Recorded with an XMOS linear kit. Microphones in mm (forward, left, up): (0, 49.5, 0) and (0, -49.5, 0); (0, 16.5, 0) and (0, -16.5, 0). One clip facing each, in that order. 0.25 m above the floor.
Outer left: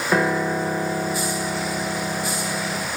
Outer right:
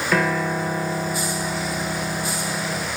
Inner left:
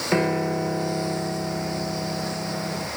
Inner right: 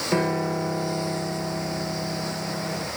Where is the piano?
25° left (ahead or behind), 1.1 m.